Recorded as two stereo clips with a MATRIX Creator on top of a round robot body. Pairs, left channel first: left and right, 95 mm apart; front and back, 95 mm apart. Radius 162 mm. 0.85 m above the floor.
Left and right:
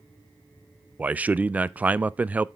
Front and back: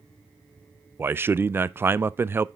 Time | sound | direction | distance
1.0 | a man speaking | 145° right | 0.5 m